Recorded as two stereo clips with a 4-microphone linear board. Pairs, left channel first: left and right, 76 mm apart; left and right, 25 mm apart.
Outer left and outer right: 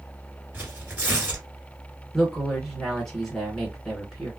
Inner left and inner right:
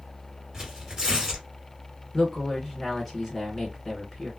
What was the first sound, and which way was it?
Tearing paper, 25° right (ahead or behind).